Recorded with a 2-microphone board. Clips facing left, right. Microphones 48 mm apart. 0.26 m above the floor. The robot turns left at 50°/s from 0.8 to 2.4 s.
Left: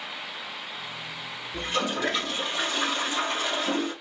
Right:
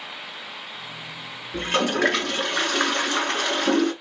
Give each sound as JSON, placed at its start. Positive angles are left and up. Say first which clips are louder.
{"t": 1.5, "sound": "a toilet flushing", "louder": "right 6 dB", "azimuth_deg": -60, "distance_m": 1.2}